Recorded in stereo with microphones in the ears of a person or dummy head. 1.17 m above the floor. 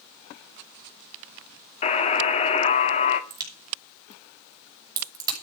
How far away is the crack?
About 6 m.